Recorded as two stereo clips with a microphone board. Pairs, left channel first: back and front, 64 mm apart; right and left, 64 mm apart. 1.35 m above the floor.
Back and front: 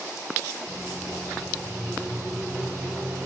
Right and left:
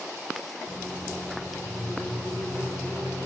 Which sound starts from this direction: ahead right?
A microwave, at 0.7 s.